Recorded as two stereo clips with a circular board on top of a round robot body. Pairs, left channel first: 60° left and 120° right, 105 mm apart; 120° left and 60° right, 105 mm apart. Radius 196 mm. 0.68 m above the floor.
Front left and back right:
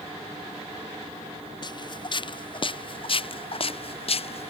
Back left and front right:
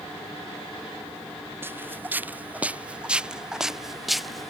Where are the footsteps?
10° left; by 4.5 s 35° left.